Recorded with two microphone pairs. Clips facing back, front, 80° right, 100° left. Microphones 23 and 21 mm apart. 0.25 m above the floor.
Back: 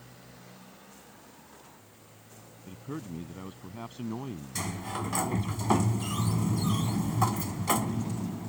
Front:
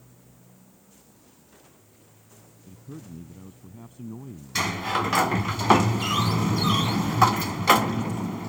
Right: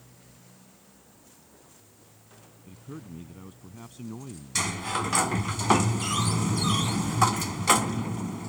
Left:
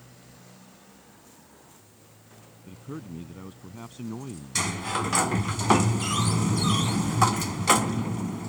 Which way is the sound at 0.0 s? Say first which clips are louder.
Back 4 dB, left 4 dB; 165° left.